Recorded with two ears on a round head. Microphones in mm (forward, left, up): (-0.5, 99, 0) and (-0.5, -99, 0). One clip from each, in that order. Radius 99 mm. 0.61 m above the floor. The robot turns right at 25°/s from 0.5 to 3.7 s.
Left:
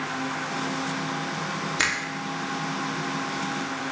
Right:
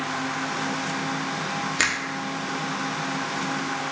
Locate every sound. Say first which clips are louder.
1.8 s a finger snap: right 1 dB; 10° right (ahead or behind), 1.0 m